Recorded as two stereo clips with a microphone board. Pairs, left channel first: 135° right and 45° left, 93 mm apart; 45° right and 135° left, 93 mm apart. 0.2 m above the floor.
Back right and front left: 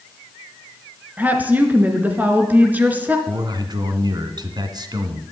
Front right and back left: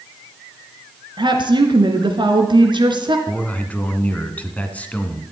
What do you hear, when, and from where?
1.2 s a woman speaking: 115° left, 2 m
3.3 s a man speaking: 25° left, 1.6 m